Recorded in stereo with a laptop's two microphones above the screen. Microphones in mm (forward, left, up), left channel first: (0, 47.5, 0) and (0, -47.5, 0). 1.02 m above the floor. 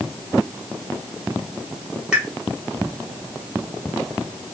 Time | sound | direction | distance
2.1 | a pop | 10° right (ahead or behind) | 1.0 m